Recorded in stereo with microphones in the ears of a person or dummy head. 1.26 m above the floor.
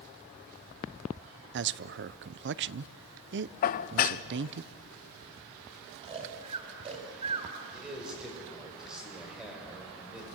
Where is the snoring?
30° right (ahead or behind), 3.5 m.